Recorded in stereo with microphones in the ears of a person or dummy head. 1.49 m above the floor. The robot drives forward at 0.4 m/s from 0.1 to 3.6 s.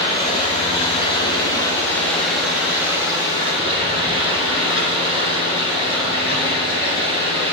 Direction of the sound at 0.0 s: 25° left (ahead or behind).